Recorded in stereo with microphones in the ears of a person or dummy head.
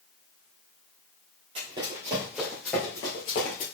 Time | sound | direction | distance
1.6 | running footsteps | 25° right (ahead or behind) | 2.0 m